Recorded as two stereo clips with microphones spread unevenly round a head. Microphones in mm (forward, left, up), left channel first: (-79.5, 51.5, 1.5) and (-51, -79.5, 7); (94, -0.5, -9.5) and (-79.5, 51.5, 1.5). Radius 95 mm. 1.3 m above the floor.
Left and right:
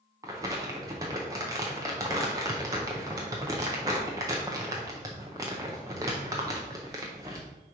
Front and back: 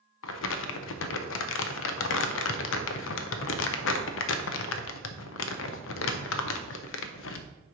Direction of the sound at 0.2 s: 5° right.